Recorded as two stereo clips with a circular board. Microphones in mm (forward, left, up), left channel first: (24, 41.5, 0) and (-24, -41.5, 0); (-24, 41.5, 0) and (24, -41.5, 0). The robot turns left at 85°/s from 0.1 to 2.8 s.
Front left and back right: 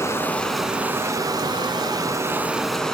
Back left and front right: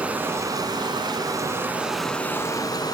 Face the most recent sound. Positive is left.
turn(degrees=140)